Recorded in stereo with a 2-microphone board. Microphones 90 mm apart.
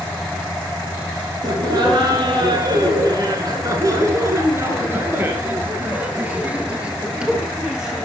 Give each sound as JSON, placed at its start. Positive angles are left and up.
{"t": 1.4, "sound": "laughter", "side_deg": -55, "distance_m": 2.0}